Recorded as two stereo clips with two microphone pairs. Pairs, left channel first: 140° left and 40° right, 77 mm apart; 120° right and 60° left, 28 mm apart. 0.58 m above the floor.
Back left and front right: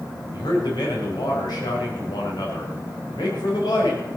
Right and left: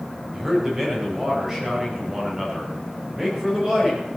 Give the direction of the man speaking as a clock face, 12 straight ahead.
8 o'clock.